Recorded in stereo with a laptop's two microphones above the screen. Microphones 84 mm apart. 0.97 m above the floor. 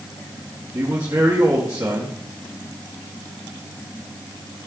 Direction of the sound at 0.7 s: 45° right (ahead or behind).